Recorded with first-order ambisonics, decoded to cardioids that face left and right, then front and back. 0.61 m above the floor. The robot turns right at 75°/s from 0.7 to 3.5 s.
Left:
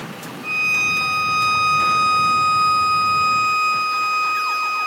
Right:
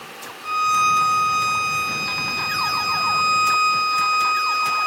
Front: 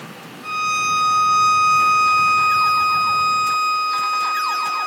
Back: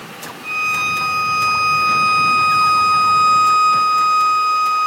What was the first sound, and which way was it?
A violin, 165° left.